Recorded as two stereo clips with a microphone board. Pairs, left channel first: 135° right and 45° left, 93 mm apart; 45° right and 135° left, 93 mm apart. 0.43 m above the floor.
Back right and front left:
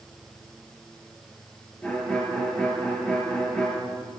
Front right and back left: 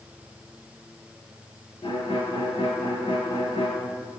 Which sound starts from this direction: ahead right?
A violin, at 1.8 s.